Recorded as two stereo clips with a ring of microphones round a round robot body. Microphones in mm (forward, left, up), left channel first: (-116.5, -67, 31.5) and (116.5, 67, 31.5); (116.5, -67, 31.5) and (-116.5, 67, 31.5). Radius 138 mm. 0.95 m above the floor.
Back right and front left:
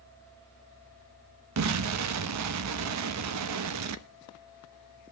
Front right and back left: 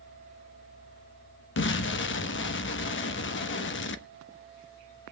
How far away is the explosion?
About 1.1 m.